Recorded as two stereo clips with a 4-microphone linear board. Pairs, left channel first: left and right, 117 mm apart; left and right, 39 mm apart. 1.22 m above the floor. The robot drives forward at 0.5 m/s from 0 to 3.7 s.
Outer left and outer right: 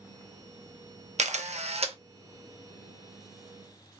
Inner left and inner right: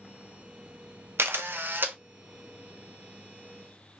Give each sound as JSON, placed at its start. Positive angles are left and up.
{"t": 1.2, "sound": "a camera shutter", "side_deg": -80, "distance_m": 0.7}